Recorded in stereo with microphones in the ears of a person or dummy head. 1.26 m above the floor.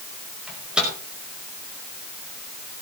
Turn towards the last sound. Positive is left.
turn(degrees=-5)  # may be behind; listen again after turning